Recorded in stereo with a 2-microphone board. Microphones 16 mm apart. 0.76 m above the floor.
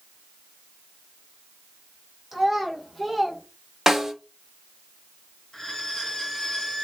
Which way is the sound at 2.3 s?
25° right (ahead or behind).